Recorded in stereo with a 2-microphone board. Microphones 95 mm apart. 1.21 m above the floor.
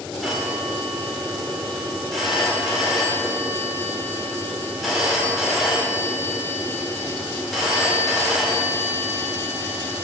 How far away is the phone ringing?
About 2.5 m.